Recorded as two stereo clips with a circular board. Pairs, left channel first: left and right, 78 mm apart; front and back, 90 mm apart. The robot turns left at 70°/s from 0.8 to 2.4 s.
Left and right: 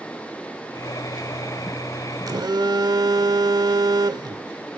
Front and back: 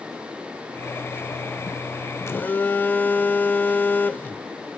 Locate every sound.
2.3 s a phone buzzing: 55° right, 0.9 m; by 4.5 s 65° right, 0.9 m